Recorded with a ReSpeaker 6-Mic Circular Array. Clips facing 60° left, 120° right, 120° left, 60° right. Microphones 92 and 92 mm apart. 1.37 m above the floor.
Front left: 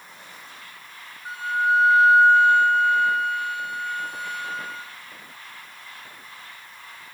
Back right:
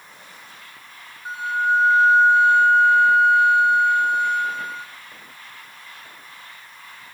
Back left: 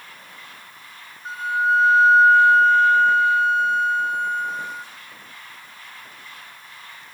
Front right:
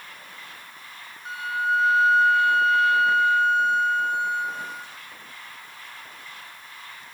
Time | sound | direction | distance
1.2 | a flute | 175° left | 4 m